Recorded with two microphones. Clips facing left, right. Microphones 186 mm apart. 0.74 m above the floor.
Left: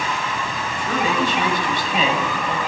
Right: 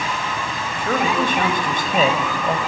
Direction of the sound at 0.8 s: 60° right (ahead or behind).